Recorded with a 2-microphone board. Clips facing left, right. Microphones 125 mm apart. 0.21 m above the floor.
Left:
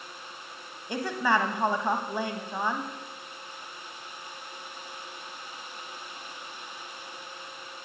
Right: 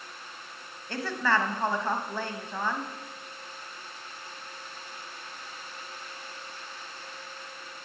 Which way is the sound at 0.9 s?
15° left (ahead or behind).